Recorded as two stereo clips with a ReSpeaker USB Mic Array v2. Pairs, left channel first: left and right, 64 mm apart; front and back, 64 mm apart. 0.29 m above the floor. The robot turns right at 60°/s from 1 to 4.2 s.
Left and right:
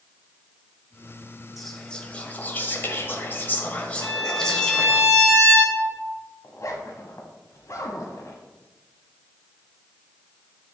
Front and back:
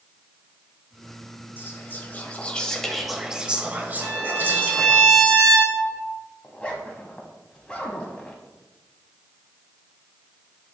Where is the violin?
90° right, 1.8 m; by 6.1 s 80° right, 1.8 m.